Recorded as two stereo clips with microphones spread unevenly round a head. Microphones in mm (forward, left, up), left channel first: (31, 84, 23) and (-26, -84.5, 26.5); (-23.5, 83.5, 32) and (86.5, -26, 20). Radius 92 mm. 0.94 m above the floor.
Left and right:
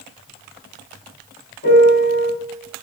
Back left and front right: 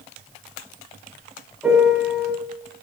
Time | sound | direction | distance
1.6 | a piano | 40° left | 4 m